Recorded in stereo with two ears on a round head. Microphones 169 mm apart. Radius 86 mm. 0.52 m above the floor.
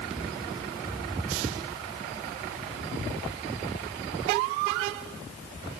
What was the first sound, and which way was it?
Only background noise.